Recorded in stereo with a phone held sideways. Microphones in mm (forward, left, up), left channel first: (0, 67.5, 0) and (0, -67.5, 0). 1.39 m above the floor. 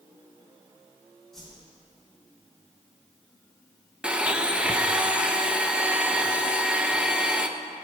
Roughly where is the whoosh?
Centre.